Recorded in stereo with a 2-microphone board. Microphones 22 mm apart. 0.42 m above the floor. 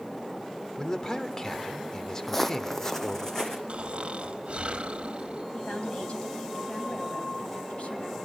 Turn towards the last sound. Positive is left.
turn(degrees=65)  # may be behind; listen again after turning